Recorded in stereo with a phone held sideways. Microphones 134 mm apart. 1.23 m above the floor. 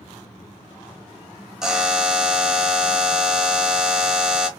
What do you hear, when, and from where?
1.6 s a buzzer: 5° right (ahead or behind), 0.7 m